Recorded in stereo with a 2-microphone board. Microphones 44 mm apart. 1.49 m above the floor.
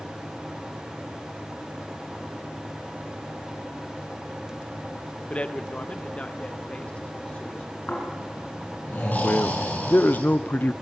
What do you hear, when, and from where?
5.3 s a man speaking: 30° left (ahead or behind), 0.8 m
7.9 s snoring: 45° left (ahead or behind), 7 m
9.2 s a man speaking: 40° left (ahead or behind), 0.6 m